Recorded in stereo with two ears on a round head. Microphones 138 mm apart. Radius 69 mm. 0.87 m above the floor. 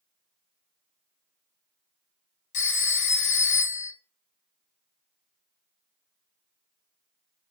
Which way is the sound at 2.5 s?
55° left (ahead or behind).